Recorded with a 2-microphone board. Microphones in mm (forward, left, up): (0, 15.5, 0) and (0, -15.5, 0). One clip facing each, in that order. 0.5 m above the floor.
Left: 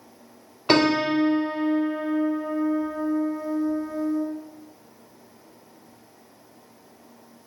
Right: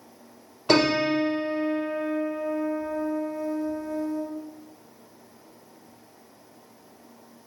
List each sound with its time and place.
0.7 s a piano: 30° left (ahead or behind), 1.4 m